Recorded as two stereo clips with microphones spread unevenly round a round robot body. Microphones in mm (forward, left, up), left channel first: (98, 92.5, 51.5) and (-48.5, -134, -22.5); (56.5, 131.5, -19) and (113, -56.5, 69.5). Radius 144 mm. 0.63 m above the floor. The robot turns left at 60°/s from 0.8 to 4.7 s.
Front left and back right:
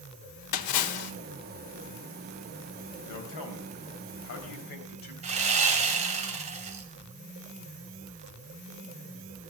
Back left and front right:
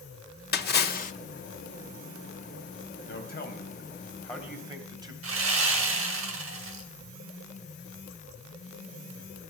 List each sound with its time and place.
0.5 s a splash: 80° left, 1.4 m; by 1.1 s 60° left, 1.4 m
3.1 s a man speaking: 100° left, 3.5 m; by 5.1 s straight ahead, 3.5 m
5.2 s sawing: 60° right, 2.5 m